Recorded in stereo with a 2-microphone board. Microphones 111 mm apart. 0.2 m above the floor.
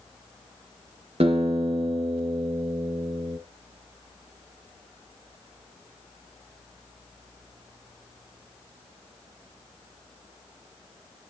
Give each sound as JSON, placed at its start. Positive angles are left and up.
{"t": 1.2, "sound": "a guitar", "side_deg": -60, "distance_m": 2.5}